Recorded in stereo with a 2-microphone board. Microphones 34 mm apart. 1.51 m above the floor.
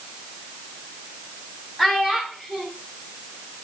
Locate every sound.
1.8 s a child speaking: centre (ahead or behind), 3 m